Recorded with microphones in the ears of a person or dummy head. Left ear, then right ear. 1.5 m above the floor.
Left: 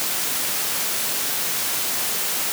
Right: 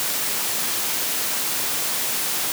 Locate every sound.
Only background noise.